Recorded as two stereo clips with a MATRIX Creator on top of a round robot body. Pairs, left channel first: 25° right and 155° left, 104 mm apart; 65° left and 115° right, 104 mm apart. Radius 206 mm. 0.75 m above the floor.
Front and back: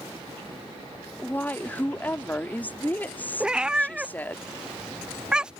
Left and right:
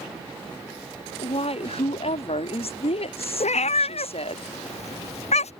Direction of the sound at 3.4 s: 75° left.